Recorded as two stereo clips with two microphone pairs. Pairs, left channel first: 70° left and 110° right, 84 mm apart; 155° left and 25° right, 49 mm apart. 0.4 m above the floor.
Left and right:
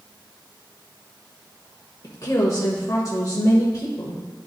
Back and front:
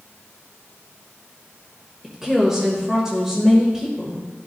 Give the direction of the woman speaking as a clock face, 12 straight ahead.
10 o'clock.